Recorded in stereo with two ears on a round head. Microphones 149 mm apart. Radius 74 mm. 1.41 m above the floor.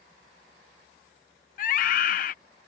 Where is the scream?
50° left (ahead or behind).